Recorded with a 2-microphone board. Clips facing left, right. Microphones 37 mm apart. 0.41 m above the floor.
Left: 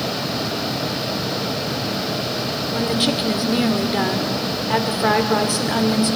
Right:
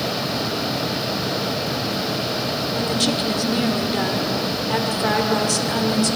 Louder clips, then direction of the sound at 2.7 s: Left 2 dB; 20° left (ahead or behind).